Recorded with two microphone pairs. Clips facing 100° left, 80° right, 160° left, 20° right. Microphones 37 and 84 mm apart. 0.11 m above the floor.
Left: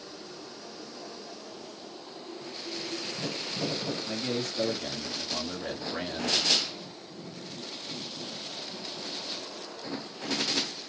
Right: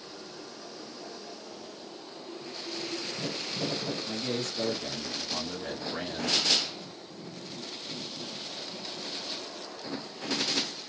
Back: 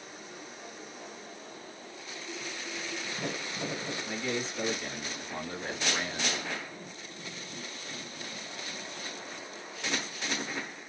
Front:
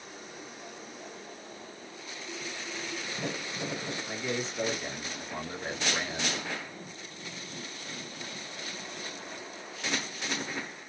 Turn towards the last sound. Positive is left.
turn(degrees=45)